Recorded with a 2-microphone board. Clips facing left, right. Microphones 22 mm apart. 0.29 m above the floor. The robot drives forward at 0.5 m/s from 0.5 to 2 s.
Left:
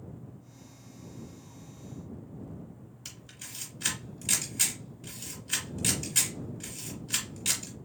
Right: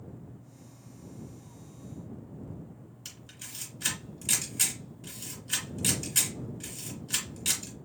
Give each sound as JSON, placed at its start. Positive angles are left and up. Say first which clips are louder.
{"t": 3.0, "sound": "a camera shutter", "louder": "even", "side_deg": 5, "distance_m": 1.9}